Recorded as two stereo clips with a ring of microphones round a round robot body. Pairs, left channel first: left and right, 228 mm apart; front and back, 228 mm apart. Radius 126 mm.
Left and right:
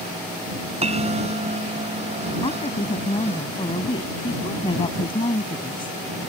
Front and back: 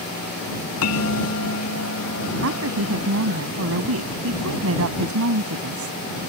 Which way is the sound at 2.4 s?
160° left.